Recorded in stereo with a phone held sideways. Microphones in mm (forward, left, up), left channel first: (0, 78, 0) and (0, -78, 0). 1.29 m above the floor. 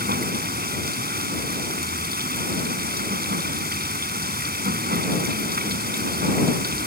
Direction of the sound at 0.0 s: 85° right.